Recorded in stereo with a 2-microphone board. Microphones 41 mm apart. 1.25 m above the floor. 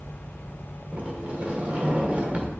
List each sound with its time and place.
0.9 s a sliding door: 35° right (ahead or behind), 1.2 m